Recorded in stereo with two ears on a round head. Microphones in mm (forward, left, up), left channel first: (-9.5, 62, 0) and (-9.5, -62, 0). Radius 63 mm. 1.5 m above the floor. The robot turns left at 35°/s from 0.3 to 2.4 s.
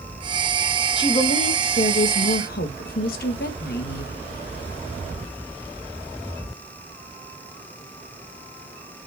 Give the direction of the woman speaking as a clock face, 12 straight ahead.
7 o'clock.